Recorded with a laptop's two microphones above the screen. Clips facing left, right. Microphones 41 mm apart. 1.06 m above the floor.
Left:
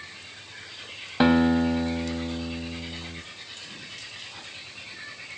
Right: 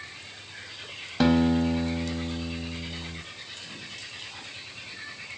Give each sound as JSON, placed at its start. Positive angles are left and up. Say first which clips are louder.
{"t": 1.2, "sound": "a guitar", "louder": "left 2 dB", "side_deg": 25, "distance_m": 1.4}